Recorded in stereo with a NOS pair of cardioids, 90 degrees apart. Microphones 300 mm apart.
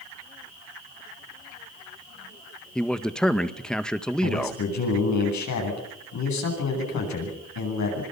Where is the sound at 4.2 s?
65° left, 10 m.